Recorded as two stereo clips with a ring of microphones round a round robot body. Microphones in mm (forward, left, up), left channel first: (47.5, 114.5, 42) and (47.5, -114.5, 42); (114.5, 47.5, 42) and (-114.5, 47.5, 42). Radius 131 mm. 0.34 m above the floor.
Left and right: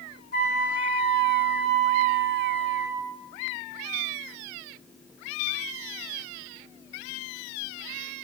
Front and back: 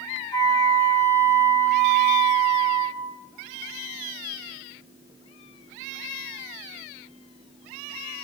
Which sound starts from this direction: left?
A flute, at 0.3 s.